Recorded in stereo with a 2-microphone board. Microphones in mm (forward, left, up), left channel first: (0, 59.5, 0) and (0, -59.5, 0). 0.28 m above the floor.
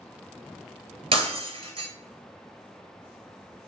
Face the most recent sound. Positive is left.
turn(degrees=-55)  # may be behind; listen again after turning